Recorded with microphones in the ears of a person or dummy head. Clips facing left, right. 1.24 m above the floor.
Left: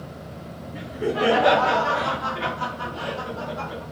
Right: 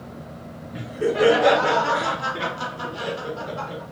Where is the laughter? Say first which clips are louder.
Right 3 dB; 60° right (ahead or behind), 1.3 m; by 3.8 s 25° right (ahead or behind), 1.5 m.